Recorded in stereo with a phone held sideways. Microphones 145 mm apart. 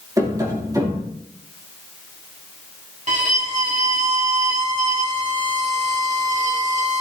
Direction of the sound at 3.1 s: 55° right (ahead or behind).